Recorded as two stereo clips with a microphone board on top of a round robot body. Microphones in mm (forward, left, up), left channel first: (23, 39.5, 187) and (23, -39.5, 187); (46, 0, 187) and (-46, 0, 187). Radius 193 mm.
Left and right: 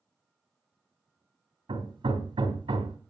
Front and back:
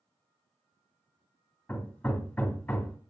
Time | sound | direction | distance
1.7 | hammering | 75° right | 2.5 m